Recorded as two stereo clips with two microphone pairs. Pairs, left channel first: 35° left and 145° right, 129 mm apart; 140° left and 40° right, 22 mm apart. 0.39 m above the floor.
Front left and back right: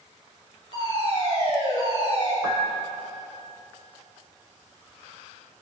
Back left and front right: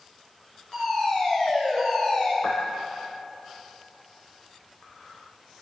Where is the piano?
150° left, 4.5 m.